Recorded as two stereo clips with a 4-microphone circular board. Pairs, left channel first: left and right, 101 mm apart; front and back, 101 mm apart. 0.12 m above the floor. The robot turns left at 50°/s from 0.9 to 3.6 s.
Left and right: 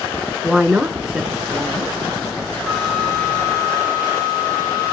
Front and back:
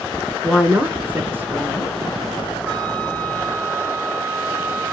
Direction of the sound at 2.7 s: Straight behind.